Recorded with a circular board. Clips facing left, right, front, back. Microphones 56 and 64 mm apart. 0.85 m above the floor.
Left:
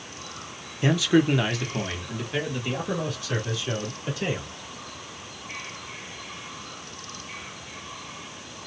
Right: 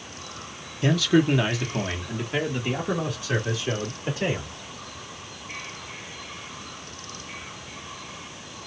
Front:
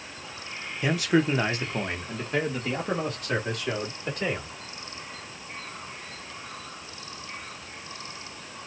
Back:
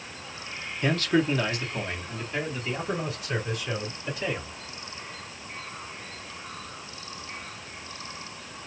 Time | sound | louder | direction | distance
0.8 | a man speaking | even, front 1 dB | 70° left | 0.9 m